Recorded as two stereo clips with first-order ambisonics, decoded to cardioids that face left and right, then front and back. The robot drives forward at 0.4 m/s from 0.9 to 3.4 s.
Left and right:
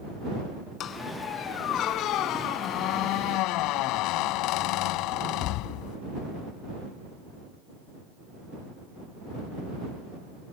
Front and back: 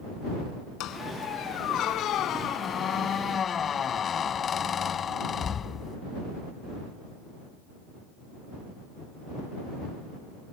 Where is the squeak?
40° left; by 6.0 s 65° left.